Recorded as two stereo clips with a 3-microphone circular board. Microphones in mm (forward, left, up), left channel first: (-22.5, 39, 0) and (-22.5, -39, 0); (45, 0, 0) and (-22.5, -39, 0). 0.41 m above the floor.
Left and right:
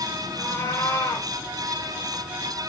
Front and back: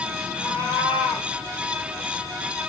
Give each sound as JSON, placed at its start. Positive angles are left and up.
{"t": 0.4, "sound": "a cat meowing", "azimuth_deg": 145, "distance_m": 6.0}